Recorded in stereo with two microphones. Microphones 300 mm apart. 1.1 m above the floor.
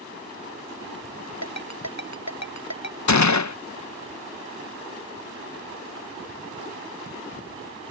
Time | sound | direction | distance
1.4 | a ringtone | 65° left (ahead or behind) | ?
3.1 | a gunshot | 65° left (ahead or behind) | ?